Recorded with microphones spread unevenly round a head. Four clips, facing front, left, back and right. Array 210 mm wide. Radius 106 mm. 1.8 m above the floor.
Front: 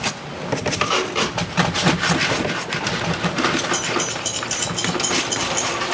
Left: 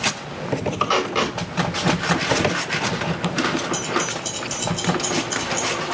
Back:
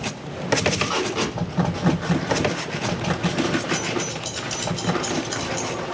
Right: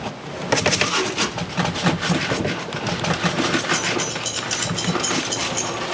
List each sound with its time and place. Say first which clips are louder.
0.8 s tape being pulled: left 2 dB, front 2 dB; 60° left, 4 m
3.7 s keys jangling: even, front 2 dB; 5° right, 3 m